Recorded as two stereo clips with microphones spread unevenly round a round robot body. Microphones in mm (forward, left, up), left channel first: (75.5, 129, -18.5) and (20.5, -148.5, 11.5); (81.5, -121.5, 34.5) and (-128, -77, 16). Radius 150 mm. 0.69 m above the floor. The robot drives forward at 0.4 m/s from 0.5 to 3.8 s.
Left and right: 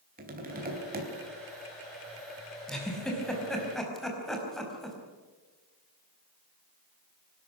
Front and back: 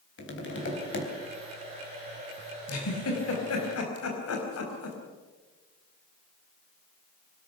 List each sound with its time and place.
0.2 s tapping: 40° right, 4 m; by 1.1 s 45° right, 4 m
2.7 s a giggle: 10° right, 5 m